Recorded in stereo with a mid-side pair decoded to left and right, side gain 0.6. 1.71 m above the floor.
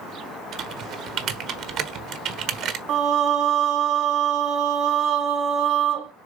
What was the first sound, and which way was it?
Typing on a keyboard, 60° right.